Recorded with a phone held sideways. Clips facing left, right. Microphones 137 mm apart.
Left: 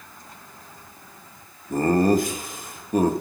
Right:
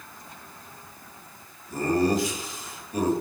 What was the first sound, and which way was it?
Laughter, 50° left (ahead or behind).